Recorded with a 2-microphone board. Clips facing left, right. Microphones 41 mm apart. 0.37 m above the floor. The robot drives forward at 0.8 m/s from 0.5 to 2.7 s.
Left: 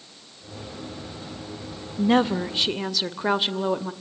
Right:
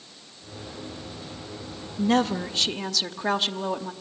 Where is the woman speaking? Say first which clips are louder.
Left 2 dB; 15° left (ahead or behind), 0.8 m.